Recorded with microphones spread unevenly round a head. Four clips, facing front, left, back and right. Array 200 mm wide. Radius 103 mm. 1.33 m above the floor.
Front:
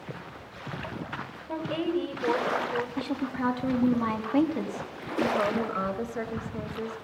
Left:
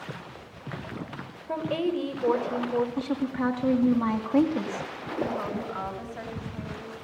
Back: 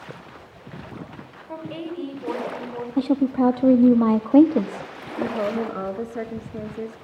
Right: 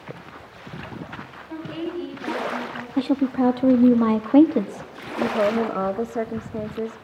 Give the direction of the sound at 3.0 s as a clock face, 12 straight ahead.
5 o'clock.